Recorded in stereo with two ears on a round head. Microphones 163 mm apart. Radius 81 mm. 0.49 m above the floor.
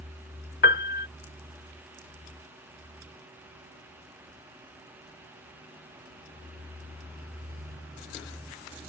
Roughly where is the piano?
Left.